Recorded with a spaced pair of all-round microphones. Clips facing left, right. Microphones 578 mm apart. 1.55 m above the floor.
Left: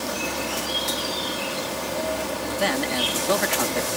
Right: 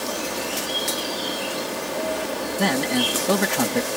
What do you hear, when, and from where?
0.0 s an insect: 30° left (ahead or behind)
2.6 s a man speaking: 65° right (ahead or behind)